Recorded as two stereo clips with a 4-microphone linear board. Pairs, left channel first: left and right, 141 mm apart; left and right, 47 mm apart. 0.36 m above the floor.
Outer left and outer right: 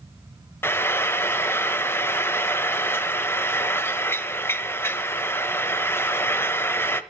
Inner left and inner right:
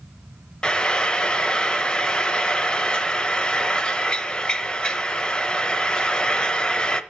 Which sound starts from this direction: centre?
Frying, at 0.6 s.